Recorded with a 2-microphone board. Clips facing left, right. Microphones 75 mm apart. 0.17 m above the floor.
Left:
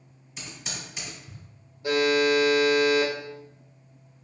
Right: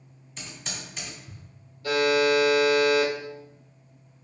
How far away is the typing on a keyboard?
About 1.2 m.